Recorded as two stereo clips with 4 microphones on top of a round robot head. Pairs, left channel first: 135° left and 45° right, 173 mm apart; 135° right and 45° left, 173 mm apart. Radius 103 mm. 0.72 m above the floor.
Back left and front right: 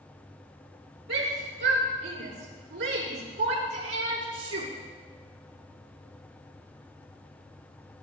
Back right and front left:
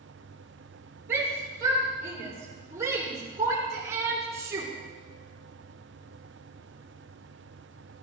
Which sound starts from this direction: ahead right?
A shout, at 1.1 s.